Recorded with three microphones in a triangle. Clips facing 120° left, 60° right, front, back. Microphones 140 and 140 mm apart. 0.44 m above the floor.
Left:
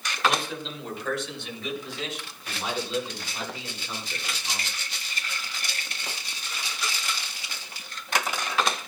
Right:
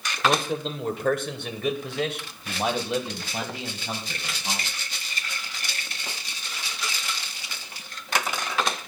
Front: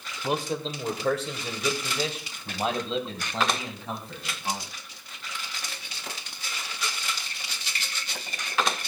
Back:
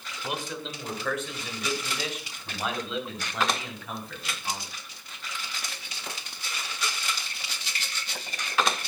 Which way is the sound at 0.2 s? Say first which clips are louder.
Right 3 dB, front 6 dB; 40° right.